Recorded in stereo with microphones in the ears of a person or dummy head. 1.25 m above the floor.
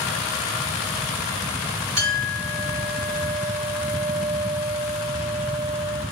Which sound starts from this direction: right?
A clink, at 2.0 s.